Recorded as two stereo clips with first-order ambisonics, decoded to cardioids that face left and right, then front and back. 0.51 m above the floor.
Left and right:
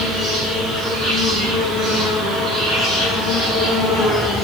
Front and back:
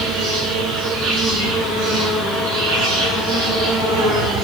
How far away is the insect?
About 9.5 m.